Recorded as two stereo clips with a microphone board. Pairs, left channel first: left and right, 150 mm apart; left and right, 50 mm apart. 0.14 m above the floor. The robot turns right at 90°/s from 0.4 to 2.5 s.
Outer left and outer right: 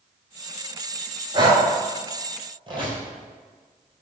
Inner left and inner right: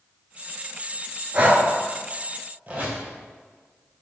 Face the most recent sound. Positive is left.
turn(degrees=-40)  # may be behind; listen again after turning